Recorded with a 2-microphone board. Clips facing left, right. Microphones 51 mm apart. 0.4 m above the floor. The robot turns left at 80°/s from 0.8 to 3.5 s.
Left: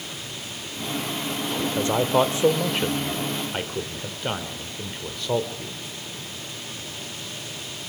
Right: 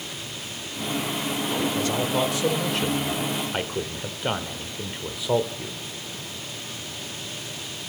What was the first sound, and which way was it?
A man speaking, 20° left (ahead or behind).